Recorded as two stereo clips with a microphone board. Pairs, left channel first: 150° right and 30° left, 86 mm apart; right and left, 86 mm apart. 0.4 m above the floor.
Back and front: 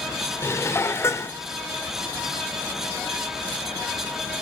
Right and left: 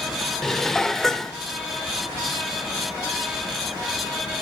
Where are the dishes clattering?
175° right, 0.5 m.